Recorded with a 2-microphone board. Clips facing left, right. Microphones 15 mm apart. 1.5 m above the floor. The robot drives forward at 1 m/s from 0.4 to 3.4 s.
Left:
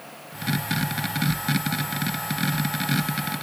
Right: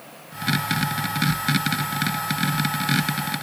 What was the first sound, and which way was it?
Only background noise.